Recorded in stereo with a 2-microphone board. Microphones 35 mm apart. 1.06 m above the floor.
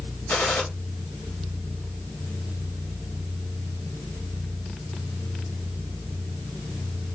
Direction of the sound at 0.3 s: 70° left (ahead or behind).